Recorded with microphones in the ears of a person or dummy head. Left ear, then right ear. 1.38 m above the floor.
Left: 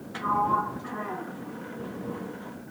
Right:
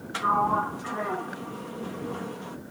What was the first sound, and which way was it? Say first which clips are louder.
A sliding door: right 1 dB; 25° right (ahead or behind).